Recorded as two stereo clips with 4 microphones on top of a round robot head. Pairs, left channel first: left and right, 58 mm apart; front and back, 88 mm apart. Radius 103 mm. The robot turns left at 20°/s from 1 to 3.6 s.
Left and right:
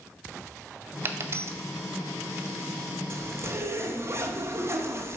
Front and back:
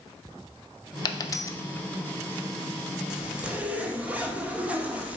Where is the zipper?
100° right, 1.0 m; by 5.2 s 110° right, 1.0 m.